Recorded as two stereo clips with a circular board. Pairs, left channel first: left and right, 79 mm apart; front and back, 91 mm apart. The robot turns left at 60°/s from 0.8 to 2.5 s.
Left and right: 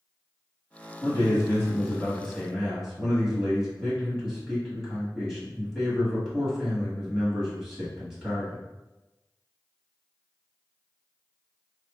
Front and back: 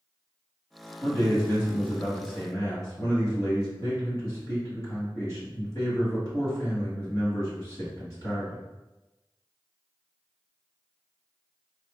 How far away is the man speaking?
About 1.7 m.